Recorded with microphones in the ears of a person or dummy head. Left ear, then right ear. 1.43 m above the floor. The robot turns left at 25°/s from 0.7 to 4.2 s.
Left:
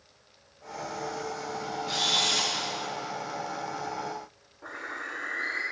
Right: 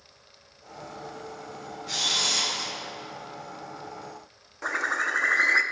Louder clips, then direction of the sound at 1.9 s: Right 1 dB; 25° left (ahead or behind).